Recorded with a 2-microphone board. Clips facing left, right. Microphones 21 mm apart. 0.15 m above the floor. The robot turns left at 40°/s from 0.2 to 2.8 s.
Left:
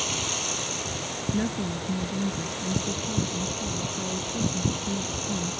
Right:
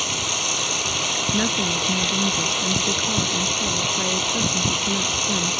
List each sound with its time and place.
0.0 s running water: 20° right; by 5.6 s 125° right
1.3 s a woman speaking: 35° right; by 5.6 s 95° right